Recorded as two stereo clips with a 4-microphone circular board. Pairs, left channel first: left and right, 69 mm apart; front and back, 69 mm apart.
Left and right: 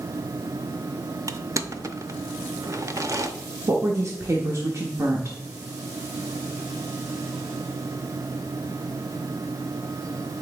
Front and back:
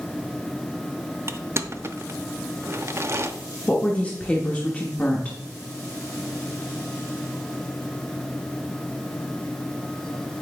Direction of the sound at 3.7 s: 65° right.